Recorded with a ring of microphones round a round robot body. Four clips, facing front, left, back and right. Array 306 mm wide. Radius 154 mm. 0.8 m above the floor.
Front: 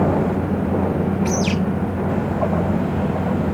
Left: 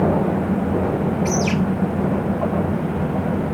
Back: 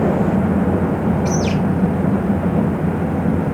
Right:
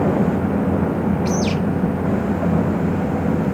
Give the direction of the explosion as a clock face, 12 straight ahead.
No explosion in this recording.